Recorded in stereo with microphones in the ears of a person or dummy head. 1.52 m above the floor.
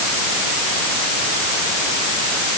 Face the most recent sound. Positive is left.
No sound to turn to.